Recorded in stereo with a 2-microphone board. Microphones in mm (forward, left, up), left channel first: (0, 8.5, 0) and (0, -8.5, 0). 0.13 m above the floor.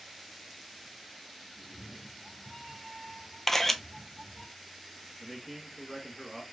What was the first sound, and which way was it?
A cat meowing, 40° left (ahead or behind).